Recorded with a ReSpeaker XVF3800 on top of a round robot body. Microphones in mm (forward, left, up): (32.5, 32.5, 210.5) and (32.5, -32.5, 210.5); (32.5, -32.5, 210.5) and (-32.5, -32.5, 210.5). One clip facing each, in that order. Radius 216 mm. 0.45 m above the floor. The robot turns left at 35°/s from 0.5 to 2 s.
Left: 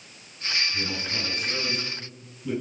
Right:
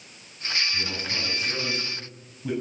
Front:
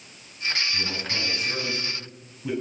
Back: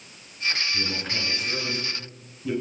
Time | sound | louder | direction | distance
0.7 | a man speaking | even, even | 10° right | 9 m